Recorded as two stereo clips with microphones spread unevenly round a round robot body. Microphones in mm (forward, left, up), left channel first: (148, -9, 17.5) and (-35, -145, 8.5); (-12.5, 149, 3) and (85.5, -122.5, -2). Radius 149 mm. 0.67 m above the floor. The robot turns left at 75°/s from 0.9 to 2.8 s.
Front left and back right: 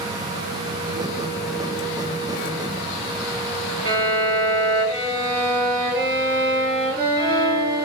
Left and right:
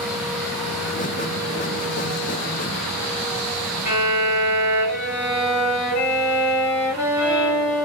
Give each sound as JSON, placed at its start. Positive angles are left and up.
{"t": 3.9, "sound": "a violin", "azimuth_deg": -155, "distance_m": 1.5}